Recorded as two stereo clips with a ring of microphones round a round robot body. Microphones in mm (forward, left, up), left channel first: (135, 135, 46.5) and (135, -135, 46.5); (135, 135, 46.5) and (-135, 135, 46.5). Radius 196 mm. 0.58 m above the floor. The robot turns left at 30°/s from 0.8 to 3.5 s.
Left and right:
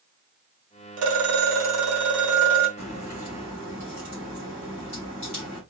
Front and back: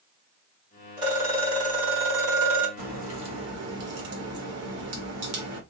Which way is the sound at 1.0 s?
100° right.